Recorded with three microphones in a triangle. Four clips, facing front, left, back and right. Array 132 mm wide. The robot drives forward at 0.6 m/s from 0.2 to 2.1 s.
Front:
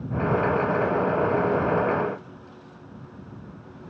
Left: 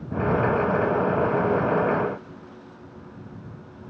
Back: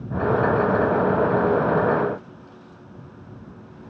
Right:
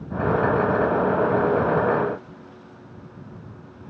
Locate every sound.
Only background noise.